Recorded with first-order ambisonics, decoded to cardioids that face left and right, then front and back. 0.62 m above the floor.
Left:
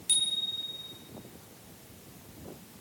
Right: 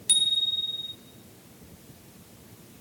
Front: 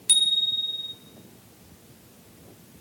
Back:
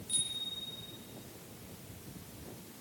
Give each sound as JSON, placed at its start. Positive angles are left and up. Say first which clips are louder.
{"t": 0.1, "sound": "a bicycle bell", "louder": "right 6 dB, front 16 dB", "azimuth_deg": -20, "distance_m": 3.0}